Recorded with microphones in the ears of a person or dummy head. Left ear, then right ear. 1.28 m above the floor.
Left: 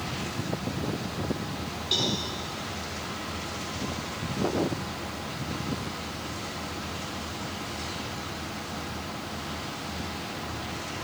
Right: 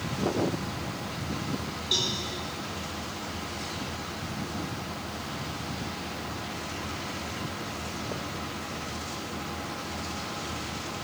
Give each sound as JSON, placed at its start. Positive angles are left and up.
{"t": 1.9, "sound": "a cowbell", "side_deg": 0, "distance_m": 1.2}